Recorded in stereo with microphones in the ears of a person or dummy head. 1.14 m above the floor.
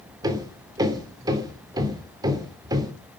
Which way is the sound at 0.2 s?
25° right (ahead or behind).